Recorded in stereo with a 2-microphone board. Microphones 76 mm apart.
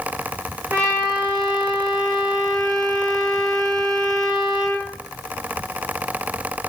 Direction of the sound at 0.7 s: 50° right (ahead or behind).